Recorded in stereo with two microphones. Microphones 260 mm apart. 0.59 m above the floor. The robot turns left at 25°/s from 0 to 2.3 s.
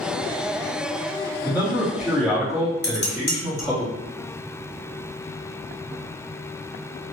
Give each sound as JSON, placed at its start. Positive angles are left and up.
{"t": 1.4, "sound": "a man speaking", "side_deg": -10, "distance_m": 1.2}
{"t": 2.8, "sound": "dishes clattering", "side_deg": 40, "distance_m": 1.0}